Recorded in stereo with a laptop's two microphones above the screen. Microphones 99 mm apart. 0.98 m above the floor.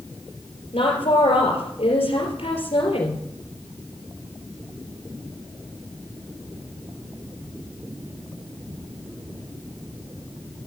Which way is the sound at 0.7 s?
80° left.